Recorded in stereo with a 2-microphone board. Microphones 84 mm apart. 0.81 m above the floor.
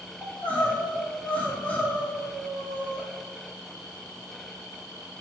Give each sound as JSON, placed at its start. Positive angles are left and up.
{"t": 0.2, "sound": "crying", "side_deg": 20, "distance_m": 1.5}